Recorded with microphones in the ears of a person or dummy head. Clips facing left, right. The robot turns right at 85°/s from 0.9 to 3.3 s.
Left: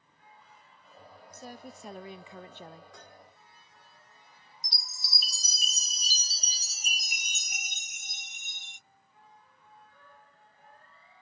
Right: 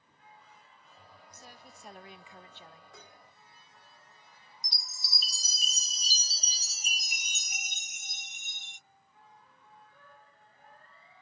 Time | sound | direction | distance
1.3 | a woman speaking | 25° left | ?
2.9 | dishes clattering | 5° left (ahead or behind) | ?
4.6 | a chime | 55° left (ahead or behind) | ?